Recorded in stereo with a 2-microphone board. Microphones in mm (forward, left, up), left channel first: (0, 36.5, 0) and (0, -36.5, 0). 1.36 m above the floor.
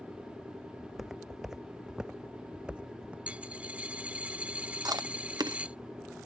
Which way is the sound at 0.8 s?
Centre (ahead or behind).